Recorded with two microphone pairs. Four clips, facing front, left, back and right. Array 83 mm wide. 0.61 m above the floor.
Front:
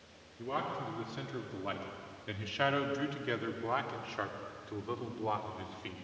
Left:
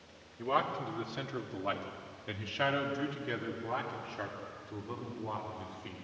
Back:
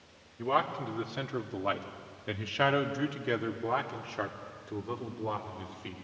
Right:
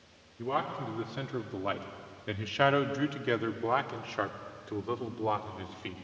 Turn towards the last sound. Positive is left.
turn(degrees=-80)